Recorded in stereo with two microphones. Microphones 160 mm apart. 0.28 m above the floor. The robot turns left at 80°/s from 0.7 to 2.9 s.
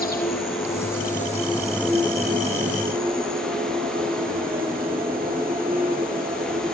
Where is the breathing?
No breathing in this recording.